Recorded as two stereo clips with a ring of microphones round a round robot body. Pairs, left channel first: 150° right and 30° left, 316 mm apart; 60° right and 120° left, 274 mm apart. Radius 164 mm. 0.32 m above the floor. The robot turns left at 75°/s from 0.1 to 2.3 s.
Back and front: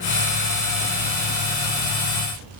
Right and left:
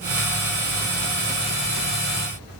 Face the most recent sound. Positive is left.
No sound to turn to.